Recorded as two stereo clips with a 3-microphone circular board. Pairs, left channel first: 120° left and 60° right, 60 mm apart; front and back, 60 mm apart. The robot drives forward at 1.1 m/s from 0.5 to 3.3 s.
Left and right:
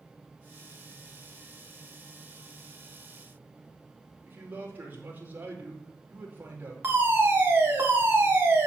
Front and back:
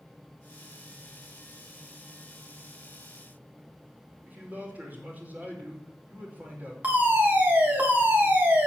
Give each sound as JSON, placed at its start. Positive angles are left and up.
{"t": 4.2, "sound": "a man speaking", "azimuth_deg": -115, "distance_m": 5.0}
{"t": 6.8, "sound": "a fire alarm", "azimuth_deg": -115, "distance_m": 4.0}